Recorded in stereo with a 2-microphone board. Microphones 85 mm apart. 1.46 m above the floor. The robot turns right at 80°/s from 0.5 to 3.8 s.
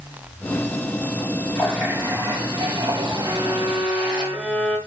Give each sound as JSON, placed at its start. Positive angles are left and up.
{"t": 1.6, "sound": "a running tap", "azimuth_deg": 170, "distance_m": 6.5}
{"t": 3.2, "sound": "a violin", "azimuth_deg": -30, "distance_m": 5.0}